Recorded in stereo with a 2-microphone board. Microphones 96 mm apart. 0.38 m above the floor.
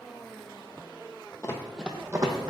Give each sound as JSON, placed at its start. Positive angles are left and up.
{"t": 1.4, "sound": "running footsteps", "side_deg": 35, "distance_m": 0.6}